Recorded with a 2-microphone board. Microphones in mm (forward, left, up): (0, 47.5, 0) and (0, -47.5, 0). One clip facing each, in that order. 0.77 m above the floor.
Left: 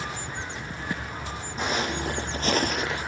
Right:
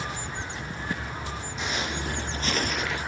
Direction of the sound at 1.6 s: 45° left (ahead or behind).